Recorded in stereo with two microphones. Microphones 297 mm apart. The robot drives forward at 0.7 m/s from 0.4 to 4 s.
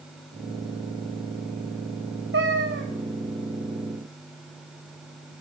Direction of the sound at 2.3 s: 45° right (ahead or behind).